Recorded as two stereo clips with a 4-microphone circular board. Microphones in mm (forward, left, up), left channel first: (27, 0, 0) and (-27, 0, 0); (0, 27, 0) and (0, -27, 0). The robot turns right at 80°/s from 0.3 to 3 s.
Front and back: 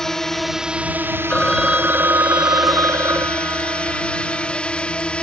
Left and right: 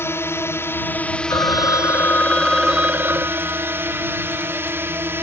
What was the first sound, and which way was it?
A drone, 80° left.